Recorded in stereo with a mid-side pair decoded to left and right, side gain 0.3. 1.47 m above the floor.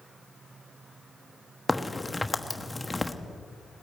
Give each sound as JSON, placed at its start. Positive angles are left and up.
{"t": 1.7, "sound": "a crack", "azimuth_deg": 20, "distance_m": 1.2}